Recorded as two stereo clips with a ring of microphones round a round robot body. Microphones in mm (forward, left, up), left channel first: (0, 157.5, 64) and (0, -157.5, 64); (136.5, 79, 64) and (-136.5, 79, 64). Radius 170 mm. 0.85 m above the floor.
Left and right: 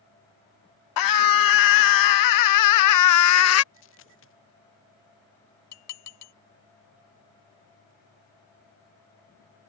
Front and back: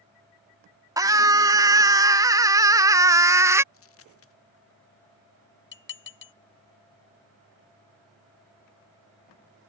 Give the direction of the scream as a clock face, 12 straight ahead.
9 o'clock.